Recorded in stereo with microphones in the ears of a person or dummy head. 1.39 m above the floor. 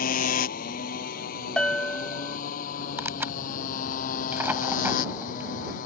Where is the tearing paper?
10° right (ahead or behind).